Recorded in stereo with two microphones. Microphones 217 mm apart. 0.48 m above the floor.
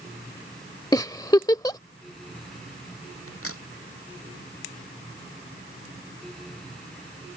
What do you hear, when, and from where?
0.9 s a giggle: 15° left (ahead or behind)
3.3 s a crack: 90° left